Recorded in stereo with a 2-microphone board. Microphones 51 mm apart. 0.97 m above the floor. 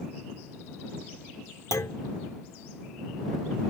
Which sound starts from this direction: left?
A clunk, at 1.7 s.